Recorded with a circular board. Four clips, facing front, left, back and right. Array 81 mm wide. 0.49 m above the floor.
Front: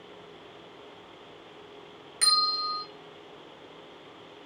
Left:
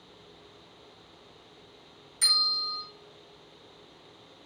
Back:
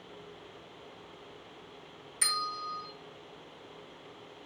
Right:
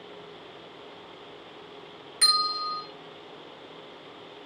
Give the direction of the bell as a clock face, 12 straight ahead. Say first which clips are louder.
Right 7 dB, front 5 dB; 2 o'clock.